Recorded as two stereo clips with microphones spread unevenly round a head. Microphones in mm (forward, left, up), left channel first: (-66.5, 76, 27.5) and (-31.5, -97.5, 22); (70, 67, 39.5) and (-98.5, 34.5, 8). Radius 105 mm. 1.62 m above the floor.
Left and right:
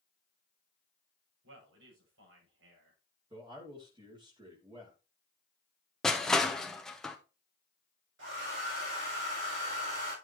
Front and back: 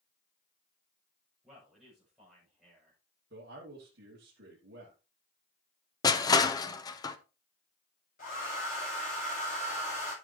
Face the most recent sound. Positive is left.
turn(degrees=-45)